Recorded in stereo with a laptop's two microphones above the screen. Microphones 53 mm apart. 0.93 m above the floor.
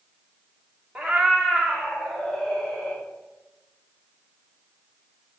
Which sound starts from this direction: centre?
A cat meowing, at 0.9 s.